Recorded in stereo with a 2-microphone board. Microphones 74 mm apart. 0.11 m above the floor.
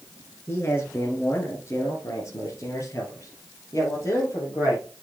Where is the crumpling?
No crumpling in this recording.